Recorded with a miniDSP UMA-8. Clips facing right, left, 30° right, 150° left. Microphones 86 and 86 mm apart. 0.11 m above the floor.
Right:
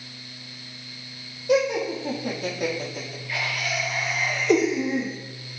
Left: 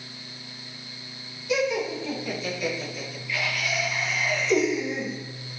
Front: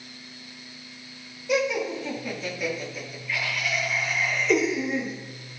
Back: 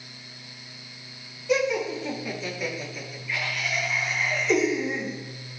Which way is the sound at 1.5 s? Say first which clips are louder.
Right 4 dB, back 1 dB; 115° right.